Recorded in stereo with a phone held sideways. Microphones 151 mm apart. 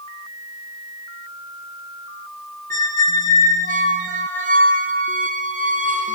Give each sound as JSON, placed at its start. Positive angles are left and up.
{"t": 2.7, "sound": "a squeak", "side_deg": -60, "distance_m": 0.5}